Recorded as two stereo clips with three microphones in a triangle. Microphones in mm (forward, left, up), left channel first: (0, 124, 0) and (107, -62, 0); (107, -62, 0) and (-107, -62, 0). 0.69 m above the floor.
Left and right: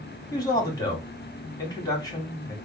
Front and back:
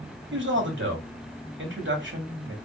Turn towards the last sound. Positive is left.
turn(degrees=-170)